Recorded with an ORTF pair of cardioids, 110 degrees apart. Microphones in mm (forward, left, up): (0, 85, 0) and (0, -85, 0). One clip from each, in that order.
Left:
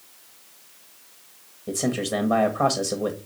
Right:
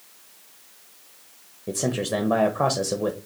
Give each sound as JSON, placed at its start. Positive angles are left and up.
{"t": 1.7, "sound": "a man speaking", "azimuth_deg": -10, "distance_m": 0.7}